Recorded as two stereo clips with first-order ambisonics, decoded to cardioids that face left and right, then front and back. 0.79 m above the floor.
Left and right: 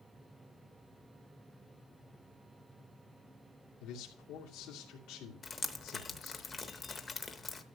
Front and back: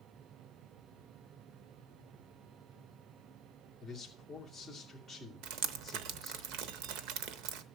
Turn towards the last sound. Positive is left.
turn(degrees=160)